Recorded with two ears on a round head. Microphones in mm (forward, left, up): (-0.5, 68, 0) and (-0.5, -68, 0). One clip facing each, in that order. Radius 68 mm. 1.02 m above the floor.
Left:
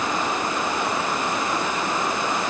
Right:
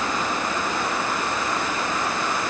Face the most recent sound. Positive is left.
No sound to turn to.